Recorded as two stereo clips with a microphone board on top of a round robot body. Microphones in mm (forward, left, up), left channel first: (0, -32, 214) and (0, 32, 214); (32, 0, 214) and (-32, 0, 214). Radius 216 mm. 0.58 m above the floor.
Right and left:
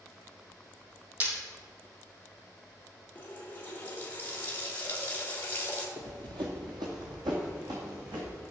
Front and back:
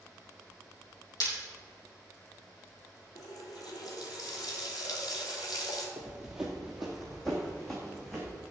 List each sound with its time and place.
1.2 s breaking glass: 30° left, 4 m
3.1 s a running tap: 25° right, 2.0 m
6.0 s running footsteps: 110° left, 0.7 m; by 8.4 s 80° left, 3 m